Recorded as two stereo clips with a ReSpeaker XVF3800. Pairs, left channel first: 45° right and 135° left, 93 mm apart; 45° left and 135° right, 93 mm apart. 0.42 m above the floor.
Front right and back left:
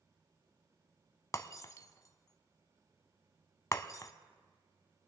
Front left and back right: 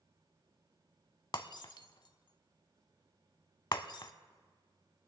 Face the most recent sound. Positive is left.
turn(degrees=10)